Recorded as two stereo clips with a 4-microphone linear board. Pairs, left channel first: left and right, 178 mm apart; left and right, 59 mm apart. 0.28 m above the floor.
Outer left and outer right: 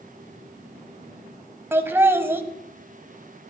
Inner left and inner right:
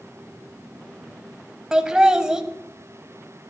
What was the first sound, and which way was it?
Laughter, 15° right (ahead or behind).